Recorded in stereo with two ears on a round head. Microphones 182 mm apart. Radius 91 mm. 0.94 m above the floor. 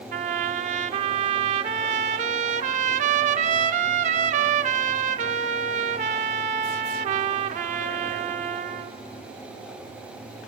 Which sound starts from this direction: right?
A trumpet, at 0.1 s.